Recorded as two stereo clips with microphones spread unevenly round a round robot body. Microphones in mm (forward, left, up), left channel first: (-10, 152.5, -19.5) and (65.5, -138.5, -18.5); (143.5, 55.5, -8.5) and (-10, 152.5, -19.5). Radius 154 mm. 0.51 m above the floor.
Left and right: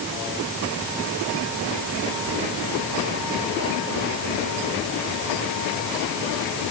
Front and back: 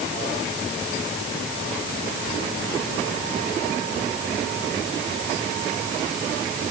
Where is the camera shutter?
I don't hear a camera shutter.